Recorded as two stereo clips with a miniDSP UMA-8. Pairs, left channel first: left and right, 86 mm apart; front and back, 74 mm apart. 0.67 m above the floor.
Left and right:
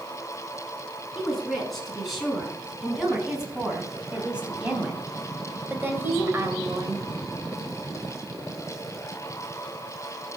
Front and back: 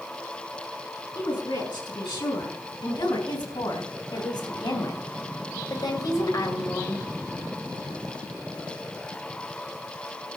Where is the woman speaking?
Straight ahead, 6 m; by 7.0 s 45° right, 2 m.